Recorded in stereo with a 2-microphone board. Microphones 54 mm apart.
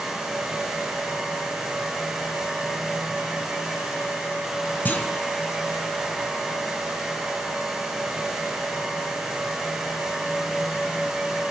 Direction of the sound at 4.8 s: 35° left (ahead or behind).